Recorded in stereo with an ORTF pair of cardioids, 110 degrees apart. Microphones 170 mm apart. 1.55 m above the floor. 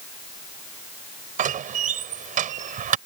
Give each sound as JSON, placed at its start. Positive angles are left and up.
{"t": 1.4, "sound": "a door slam", "azimuth_deg": -55}